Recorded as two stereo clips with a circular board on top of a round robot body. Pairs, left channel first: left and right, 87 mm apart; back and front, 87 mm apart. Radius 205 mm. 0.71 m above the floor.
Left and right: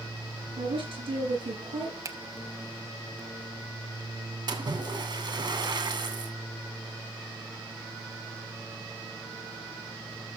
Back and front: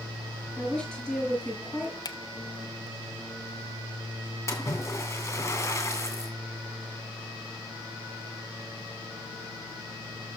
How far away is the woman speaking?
About 6.5 m.